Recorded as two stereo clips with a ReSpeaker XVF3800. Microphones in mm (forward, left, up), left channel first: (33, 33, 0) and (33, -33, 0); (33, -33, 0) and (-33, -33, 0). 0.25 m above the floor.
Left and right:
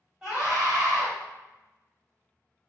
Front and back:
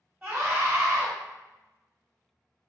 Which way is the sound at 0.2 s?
145° right.